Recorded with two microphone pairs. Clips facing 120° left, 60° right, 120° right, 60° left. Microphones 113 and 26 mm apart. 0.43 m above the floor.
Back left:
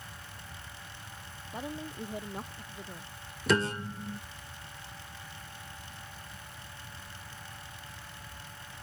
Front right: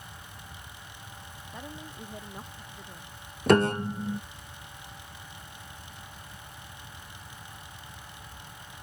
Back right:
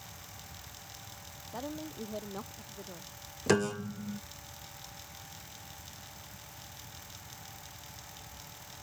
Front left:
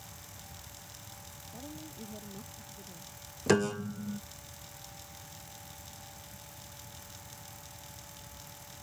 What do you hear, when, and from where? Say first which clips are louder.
1.5 s a woman speaking: back left 5 dB, back right 7 dB; 170° right
3.5 s a piano: front right 7 dB, front left 1 dB; 35° right